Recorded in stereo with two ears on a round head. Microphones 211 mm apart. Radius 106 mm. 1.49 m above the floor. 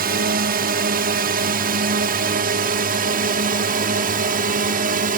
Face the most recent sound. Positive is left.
turn(degrees=-35)  # may be behind; listen again after turning